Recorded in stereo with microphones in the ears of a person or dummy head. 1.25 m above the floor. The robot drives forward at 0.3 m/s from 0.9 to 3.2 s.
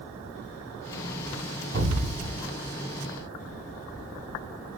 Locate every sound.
1.7 s an explosion: 70° right (ahead or behind), 3 m